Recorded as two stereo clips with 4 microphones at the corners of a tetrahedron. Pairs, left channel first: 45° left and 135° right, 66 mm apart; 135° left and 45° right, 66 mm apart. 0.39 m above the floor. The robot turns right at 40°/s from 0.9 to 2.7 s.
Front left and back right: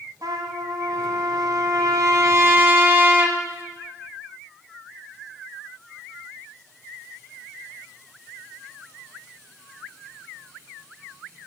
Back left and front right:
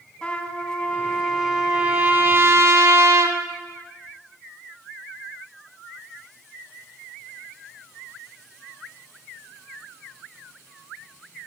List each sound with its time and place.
0.2 s a trumpet: 145° right, 1.8 m; by 3.4 s 75° right, 1.8 m